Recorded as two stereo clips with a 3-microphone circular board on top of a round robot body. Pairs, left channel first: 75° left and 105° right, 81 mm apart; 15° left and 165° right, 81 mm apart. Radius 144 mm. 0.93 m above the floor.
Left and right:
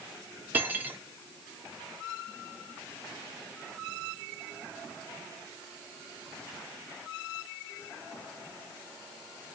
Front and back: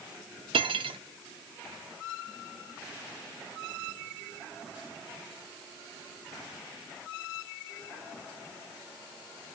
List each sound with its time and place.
0.5 s cutlery clinking: 175° right, 0.7 m